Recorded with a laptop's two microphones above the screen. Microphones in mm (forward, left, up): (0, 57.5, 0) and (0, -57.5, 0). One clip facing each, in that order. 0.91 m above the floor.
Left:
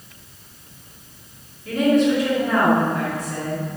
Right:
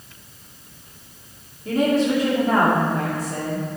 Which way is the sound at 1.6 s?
35° right (ahead or behind).